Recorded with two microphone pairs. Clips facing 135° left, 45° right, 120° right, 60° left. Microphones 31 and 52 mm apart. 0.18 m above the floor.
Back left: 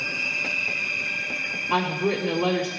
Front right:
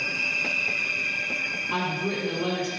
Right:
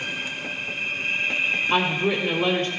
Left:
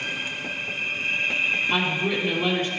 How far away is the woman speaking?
About 3.5 m.